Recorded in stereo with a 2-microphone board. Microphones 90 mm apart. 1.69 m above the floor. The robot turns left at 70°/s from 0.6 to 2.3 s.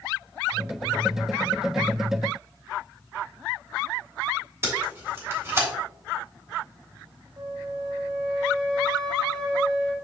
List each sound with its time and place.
4.6 s tape being pulled: 25° right (ahead or behind), 3 m
7.4 s a flute: 50° right (ahead or behind), 2 m